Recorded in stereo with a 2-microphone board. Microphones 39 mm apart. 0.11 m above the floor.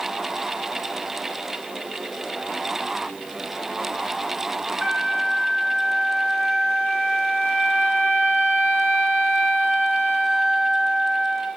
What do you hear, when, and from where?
4.8 s a flute: 20° right (ahead or behind), 3.5 m